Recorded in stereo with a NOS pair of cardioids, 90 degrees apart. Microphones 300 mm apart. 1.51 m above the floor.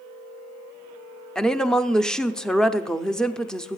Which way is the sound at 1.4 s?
Straight ahead.